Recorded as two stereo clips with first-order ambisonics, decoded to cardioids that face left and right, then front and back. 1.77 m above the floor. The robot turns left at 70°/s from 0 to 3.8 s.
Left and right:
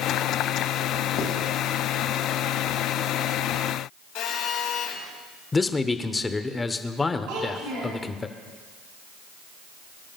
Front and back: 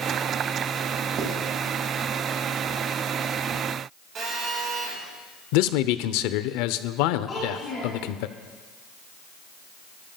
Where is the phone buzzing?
125° left, 4.5 m.